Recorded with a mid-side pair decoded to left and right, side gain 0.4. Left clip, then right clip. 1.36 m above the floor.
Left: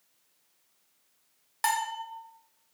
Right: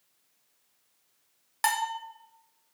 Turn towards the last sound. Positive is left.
turn(degrees=-25)